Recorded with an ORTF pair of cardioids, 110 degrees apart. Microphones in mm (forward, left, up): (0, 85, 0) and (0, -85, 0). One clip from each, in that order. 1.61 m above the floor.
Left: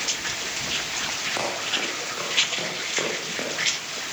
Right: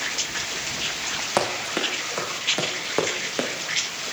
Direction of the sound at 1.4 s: 55° right.